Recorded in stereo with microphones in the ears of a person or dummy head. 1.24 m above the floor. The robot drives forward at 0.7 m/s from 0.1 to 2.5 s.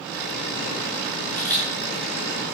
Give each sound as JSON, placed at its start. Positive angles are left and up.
{"t": 1.3, "sound": "a camera shutter", "side_deg": 10, "distance_m": 7.5}